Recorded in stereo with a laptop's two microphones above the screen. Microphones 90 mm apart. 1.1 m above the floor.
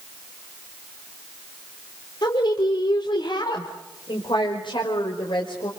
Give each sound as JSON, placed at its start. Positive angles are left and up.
{"t": 2.2, "sound": "a woman speaking", "side_deg": 55, "distance_m": 3.5}